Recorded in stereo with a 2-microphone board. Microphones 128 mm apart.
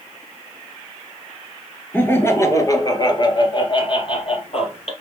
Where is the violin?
No violin in this recording.